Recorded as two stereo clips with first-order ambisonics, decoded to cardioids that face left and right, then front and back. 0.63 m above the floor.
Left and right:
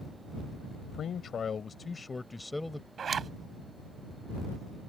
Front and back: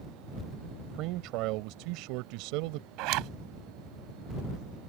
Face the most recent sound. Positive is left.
turn(degrees=-155)